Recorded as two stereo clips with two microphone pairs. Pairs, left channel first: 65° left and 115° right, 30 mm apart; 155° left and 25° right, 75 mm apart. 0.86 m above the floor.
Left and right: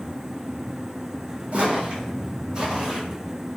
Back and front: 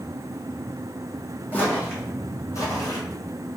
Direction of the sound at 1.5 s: 145° right.